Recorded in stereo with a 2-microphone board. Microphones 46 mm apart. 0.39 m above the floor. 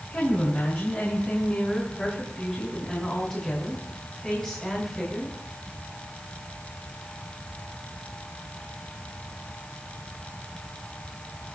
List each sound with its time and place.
0.1 s a woman speaking: 40° left (ahead or behind), 5 m; by 5.4 s 5° left (ahead or behind), 4.5 m